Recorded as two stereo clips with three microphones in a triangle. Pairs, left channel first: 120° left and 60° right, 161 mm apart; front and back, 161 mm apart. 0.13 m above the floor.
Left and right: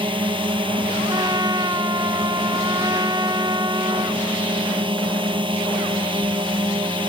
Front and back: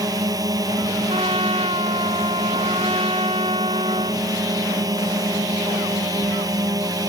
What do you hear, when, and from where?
0.0 s a drone: 115° right
1.1 s a trumpet: 125° right